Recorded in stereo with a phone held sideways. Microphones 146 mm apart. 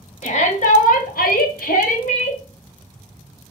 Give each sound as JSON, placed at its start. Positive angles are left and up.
{"t": 0.2, "sound": "a shout", "side_deg": 50, "distance_m": 1.0}